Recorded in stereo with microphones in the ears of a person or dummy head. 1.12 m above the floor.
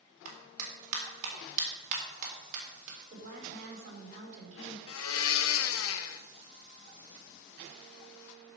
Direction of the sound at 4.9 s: 75° left (ahead or behind).